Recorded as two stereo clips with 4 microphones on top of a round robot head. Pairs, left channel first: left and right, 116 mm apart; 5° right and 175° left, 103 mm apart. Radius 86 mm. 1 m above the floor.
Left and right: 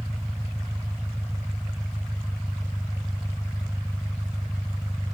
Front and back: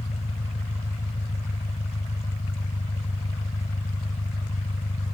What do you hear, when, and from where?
0.0 s an engine running: straight ahead